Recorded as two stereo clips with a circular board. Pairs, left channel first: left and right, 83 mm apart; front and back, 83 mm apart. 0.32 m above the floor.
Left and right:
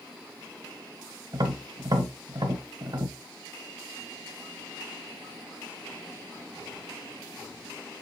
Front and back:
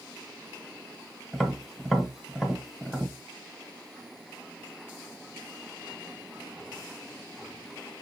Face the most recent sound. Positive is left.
turn(degrees=-90)